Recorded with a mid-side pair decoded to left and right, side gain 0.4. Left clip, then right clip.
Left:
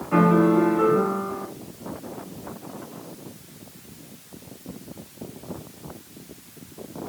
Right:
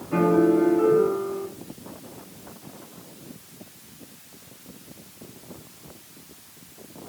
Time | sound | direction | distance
0.1 | a piano | 65° left | 2.5 m